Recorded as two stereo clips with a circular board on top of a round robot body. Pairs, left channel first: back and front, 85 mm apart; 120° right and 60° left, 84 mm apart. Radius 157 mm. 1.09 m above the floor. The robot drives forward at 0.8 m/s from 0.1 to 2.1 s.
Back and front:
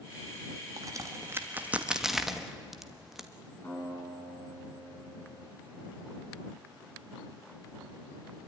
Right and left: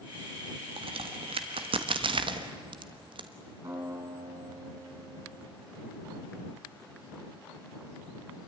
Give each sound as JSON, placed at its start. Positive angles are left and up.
{"t": 0.8, "sound": "a crack", "azimuth_deg": 50, "distance_m": 1.7}
{"t": 3.6, "sound": "a guitar", "azimuth_deg": 115, "distance_m": 7.0}